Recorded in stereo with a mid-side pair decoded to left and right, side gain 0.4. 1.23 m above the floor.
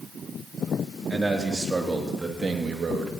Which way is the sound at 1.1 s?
25° right.